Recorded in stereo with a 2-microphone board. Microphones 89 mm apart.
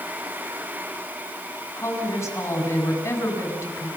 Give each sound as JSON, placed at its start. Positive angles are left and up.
{"t": 1.8, "sound": "a woman speaking", "side_deg": 40, "distance_m": 5.0}